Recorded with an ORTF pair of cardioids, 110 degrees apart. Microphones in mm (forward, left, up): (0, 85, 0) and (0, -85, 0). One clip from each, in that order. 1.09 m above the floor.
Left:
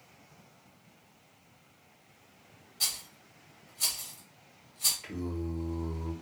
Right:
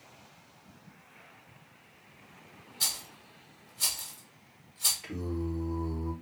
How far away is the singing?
About 0.7 m.